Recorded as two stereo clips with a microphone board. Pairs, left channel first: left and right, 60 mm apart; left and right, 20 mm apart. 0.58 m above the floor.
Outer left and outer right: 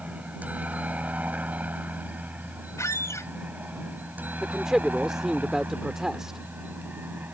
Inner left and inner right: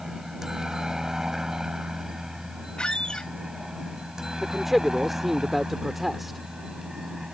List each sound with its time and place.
0.0 s a helicopter: 25° right (ahead or behind); by 7.3 s 30° right (ahead or behind)
2.8 s a squeak: 55° left (ahead or behind)
4.4 s a man speaking: 10° right (ahead or behind)